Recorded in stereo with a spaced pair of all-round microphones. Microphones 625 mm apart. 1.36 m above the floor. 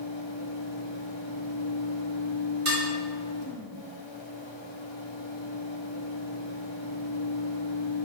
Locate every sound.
0.0 s a fan: 45° left (ahead or behind), 1.0 m
2.6 s dishes clattering: 50° right (ahead or behind), 2 m